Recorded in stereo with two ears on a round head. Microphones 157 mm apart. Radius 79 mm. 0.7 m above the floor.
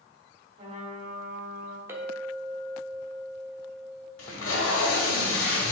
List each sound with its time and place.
0.6 s a trumpet: 30° right (ahead or behind), 1.2 m
1.9 s a clink: 15° right (ahead or behind), 1.3 m
4.2 s tape being pulled: 85° left, 1.9 m